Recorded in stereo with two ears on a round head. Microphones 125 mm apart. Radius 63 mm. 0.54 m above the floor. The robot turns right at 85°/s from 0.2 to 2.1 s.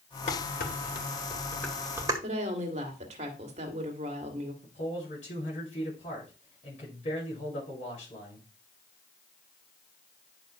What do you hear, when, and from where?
0.3 s dishes clattering: 45° left (ahead or behind), 1.6 m; by 2.1 s 25° right (ahead or behind), 1.6 m
2.2 s a woman speaking: 50° right (ahead or behind), 2.0 m
4.6 s a man speaking: 55° left (ahead or behind), 7 m